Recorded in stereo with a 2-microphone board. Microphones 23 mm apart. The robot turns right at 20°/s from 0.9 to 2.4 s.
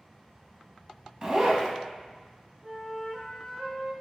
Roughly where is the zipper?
Right.